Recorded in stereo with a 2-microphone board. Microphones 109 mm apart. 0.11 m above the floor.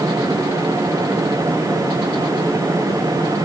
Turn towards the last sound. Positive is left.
No sound to turn to.